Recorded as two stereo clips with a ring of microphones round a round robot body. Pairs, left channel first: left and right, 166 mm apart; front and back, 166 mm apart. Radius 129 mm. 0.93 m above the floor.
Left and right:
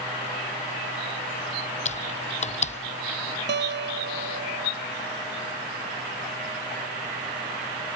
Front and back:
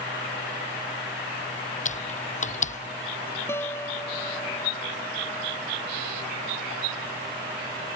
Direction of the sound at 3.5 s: 80° right.